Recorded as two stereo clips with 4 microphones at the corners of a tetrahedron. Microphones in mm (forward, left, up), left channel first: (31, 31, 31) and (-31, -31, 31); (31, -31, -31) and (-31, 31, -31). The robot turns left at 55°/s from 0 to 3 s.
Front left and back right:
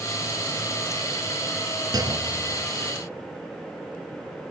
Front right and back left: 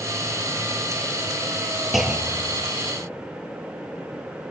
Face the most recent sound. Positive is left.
turn(degrees=165)